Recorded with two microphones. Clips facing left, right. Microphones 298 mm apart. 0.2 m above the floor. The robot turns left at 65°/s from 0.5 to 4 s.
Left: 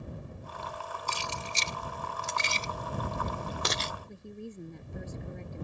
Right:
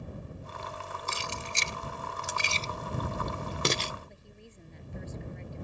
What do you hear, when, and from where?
1.1 s keys jangling: 40° left (ahead or behind); by 3.9 s 45° right (ahead or behind)
4.1 s a woman speaking: 55° left (ahead or behind)